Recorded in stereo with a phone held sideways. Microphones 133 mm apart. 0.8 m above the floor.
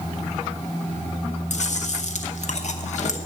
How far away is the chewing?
About 0.8 m.